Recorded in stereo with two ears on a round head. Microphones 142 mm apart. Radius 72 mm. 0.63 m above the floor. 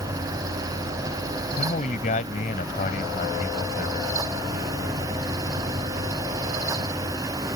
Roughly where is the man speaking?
Left.